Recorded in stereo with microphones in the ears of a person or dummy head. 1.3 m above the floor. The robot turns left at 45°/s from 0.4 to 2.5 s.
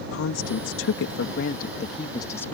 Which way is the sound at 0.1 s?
105° left.